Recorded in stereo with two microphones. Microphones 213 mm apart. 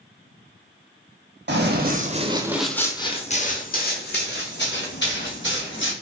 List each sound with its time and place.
1.5 s running footsteps: 60° right (ahead or behind), 0.8 m; by 5.9 s 65° left (ahead or behind), 2 m